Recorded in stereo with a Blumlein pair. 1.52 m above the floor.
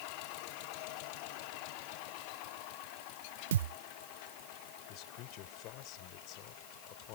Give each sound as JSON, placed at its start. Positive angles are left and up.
{"t": 3.5, "sound": "a thud", "azimuth_deg": -60}
{"t": 4.9, "sound": "a man speaking", "azimuth_deg": 40}